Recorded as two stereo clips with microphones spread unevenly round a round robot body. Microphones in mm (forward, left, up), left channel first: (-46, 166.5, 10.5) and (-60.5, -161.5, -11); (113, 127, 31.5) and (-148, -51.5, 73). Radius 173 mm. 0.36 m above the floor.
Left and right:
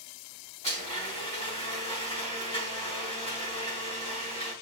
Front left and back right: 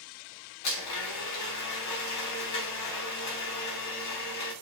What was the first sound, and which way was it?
A blender, 10° left.